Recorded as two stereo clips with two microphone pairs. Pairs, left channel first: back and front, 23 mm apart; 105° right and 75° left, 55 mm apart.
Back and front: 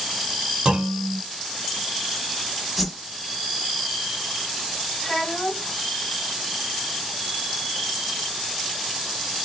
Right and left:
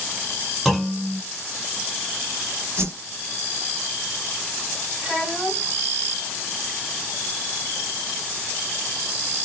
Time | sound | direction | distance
0.7 | a clunk | 10° right | 0.8 m
2.8 | a whoosh | 90° left | 0.8 m
5.0 | a child speaking | 140° left | 1.7 m